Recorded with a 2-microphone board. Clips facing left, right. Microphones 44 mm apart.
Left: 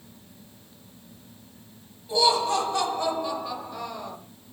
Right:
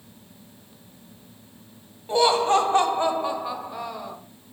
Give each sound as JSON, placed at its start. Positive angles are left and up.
{"t": 2.1, "sound": "laughter", "side_deg": -40, "distance_m": 1.8}